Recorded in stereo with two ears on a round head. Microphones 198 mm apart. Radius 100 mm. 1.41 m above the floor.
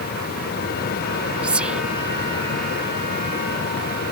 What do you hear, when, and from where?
1.4 s whispering: 5° right (ahead or behind)